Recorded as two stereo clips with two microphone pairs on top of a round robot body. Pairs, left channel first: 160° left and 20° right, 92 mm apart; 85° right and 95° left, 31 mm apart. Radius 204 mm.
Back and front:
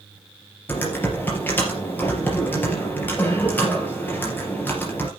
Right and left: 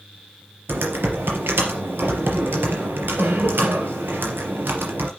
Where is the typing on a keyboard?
90° left, 3.5 m.